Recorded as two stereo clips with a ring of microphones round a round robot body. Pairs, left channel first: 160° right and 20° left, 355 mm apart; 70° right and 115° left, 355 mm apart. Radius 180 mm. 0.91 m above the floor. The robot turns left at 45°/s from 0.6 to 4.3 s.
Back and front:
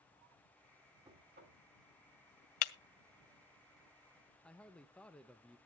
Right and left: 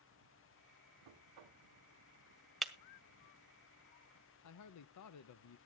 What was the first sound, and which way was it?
Knocking, 100° left.